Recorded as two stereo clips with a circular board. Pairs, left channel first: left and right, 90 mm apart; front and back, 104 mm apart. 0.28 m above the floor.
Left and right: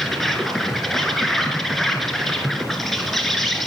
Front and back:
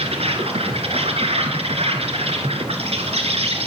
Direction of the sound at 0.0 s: Straight behind.